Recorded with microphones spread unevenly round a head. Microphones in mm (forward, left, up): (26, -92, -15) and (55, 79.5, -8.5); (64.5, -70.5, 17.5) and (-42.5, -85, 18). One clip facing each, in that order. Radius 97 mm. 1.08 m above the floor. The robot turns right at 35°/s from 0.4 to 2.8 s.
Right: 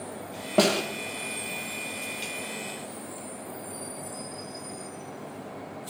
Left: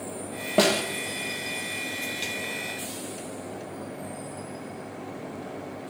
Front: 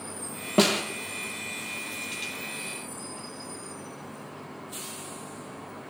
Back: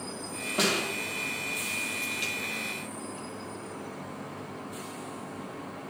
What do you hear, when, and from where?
0.6 s a snare drum: 5° right, 1.6 m; by 0.8 s 5° left, 1.6 m